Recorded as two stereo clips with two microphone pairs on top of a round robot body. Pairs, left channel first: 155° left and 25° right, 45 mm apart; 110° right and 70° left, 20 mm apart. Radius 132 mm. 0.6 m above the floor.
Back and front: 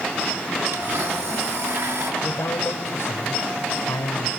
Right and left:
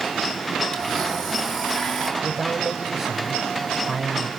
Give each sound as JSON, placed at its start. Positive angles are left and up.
{"t": 0.7, "sound": "a blender", "azimuth_deg": -20, "distance_m": 6.0}
{"t": 2.2, "sound": "a man speaking", "azimuth_deg": 125, "distance_m": 3.5}